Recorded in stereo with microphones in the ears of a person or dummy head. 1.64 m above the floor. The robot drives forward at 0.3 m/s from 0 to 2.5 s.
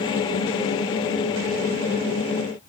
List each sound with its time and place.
Only background noise.